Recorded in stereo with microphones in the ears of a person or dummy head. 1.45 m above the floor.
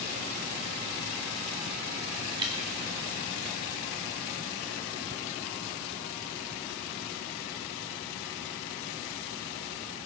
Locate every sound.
2.4 s dripping: 20° right (ahead or behind), 2 m